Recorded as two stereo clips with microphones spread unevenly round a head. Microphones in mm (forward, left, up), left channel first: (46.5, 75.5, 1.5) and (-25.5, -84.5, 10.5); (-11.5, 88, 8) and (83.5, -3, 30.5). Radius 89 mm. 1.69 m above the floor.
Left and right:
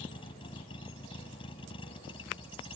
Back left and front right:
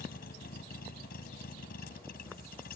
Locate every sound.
0.0 s a vehicle: 130° left